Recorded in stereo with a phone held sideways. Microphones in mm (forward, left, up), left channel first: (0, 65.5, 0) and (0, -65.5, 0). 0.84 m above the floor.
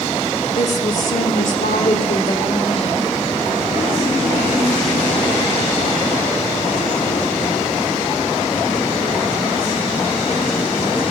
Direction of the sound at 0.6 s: 55° left (ahead or behind).